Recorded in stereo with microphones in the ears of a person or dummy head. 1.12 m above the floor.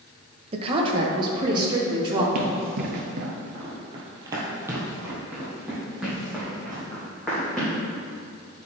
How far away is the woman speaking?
About 1.1 m.